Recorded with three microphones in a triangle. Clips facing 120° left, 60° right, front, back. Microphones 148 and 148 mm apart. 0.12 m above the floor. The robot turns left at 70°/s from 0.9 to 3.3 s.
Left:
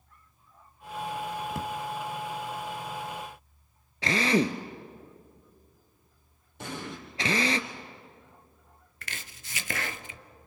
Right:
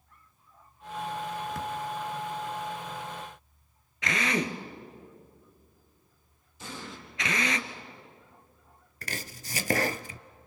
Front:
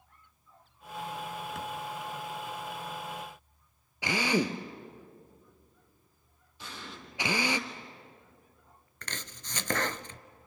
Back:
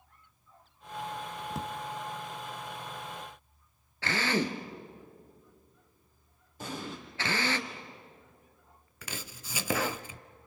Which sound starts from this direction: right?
Chopping, at 9.0 s.